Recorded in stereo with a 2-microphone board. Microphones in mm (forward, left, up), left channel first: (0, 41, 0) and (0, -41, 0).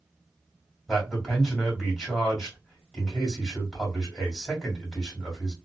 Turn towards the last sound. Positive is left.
turn(degrees=0)  # may be behind; listen again after turning